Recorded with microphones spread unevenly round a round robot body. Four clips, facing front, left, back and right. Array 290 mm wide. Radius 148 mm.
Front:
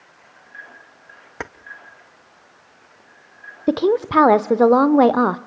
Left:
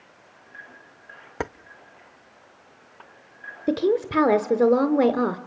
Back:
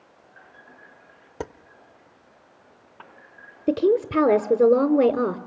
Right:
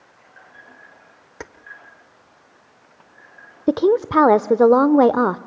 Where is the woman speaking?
105° right, 0.9 m.